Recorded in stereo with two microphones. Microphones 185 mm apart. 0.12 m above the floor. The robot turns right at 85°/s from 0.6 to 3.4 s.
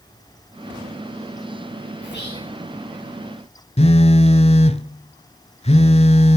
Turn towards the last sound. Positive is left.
turn(degrees=35)  # may be behind; listen again after turning